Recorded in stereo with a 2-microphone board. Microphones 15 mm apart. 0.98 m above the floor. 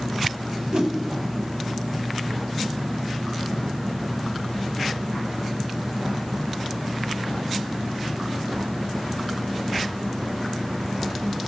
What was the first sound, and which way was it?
A whoosh, 75° right (ahead or behind).